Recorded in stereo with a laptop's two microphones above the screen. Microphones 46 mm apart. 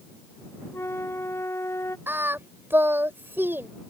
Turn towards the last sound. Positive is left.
turn(degrees=-55)  # may be behind; listen again after turning